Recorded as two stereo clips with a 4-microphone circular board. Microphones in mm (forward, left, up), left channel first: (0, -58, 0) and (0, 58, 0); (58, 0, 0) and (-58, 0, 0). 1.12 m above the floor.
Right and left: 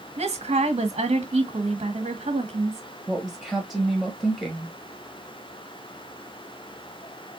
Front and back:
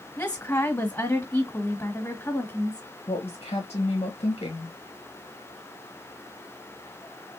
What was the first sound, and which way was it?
A woman speaking, 70° left.